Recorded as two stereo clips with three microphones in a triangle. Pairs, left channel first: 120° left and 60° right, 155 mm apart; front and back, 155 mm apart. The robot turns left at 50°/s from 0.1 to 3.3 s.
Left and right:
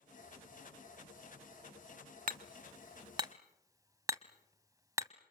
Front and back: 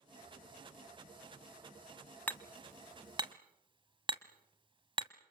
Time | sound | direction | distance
2.3 | hammering | 75° right | 0.9 m